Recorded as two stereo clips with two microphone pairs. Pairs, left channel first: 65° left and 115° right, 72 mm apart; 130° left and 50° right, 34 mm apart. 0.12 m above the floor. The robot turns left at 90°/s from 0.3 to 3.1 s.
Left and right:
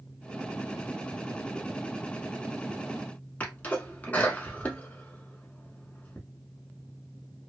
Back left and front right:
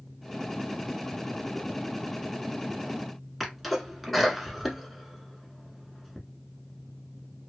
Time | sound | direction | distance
3.4 | a sneeze | 35° left | 1.1 m